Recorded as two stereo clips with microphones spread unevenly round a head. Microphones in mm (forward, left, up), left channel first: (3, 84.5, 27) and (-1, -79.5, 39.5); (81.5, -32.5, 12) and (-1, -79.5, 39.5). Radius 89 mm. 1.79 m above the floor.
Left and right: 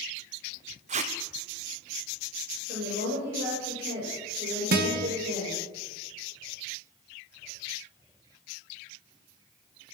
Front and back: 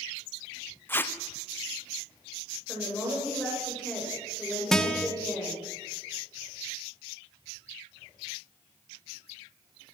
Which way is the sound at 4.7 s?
60° right.